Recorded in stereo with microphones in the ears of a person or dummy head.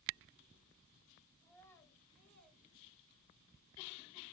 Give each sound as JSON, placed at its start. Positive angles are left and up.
{"t": 1.4, "sound": "a child speaking", "side_deg": 25, "distance_m": 4.0}